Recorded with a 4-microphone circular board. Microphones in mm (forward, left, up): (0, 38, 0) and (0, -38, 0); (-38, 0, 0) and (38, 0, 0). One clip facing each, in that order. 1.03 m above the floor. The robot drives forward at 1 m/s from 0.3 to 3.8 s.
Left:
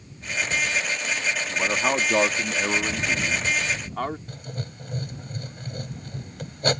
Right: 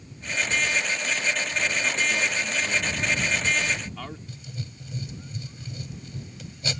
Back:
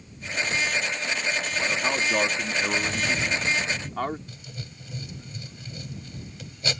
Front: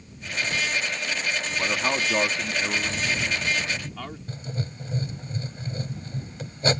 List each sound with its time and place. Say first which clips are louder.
1.5 s a man speaking: left 4 dB, front 2 dB; 70° left; by 4.2 s 130° left
4.3 s writing: left 3 dB, front 8 dB; 50° left